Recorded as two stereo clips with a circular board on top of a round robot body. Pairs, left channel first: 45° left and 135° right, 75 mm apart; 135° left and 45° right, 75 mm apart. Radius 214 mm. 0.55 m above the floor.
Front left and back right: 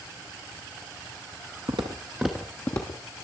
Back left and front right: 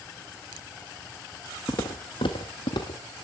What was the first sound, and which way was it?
Footsteps, 160° right.